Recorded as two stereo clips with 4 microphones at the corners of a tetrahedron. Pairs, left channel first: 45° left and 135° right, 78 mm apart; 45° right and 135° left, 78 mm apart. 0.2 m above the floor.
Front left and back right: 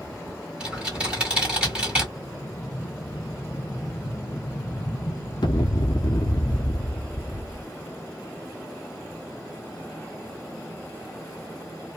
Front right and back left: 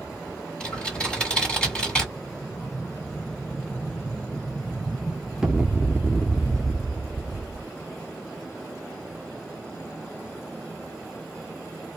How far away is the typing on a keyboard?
About 1.6 m.